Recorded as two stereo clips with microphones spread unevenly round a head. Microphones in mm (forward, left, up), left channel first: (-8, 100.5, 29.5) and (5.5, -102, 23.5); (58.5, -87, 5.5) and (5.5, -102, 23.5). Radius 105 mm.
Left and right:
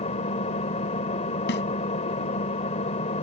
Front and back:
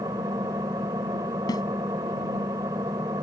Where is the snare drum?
55° left.